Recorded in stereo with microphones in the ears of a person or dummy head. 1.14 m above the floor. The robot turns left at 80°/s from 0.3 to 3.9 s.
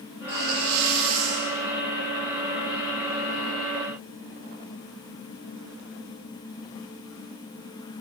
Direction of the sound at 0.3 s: 15° right.